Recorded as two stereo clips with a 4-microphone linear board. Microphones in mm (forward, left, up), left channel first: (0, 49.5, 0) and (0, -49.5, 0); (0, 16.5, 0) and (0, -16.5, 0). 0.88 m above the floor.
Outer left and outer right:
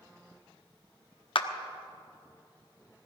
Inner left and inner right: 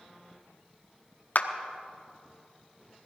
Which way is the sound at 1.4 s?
60° left (ahead or behind).